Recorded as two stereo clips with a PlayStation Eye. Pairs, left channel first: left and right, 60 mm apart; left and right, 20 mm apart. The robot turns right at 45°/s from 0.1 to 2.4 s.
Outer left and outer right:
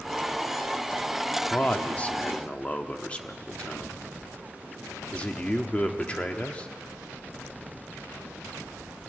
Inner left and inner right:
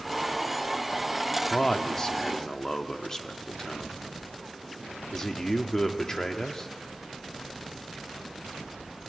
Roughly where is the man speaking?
Left.